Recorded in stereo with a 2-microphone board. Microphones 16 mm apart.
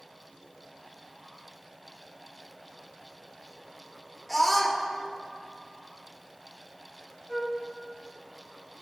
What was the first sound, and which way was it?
A scream, 10° left (ahead or behind).